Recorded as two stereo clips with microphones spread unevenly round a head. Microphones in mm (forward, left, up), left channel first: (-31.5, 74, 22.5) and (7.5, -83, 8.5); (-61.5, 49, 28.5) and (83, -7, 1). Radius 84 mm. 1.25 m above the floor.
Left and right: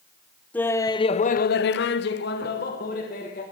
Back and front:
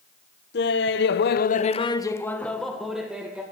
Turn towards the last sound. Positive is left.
turn(degrees=60)